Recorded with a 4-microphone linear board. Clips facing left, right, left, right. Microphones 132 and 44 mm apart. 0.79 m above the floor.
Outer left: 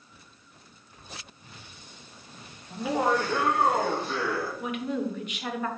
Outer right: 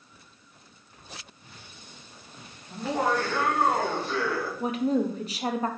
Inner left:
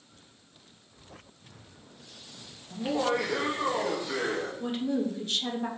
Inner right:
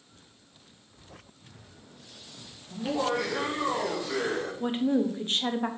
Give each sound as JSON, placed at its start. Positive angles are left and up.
{"t": 2.7, "sound": "laughter", "side_deg": 5, "distance_m": 1.1}
{"t": 4.6, "sound": "a woman speaking", "side_deg": -35, "distance_m": 0.6}